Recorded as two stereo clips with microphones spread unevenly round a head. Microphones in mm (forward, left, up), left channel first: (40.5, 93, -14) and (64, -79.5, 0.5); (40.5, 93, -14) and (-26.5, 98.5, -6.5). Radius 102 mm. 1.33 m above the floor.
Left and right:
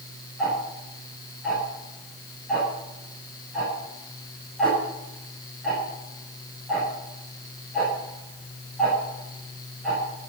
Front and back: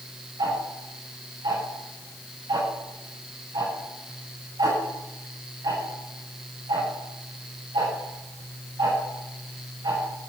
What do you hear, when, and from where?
0.4 s ticking: 170° right, 8 m